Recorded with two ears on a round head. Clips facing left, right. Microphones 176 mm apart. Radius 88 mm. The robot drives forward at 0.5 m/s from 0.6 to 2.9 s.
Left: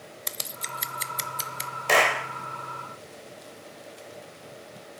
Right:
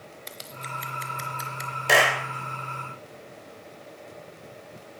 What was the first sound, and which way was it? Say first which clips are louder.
Scissors: right 1 dB; 60° left (ahead or behind).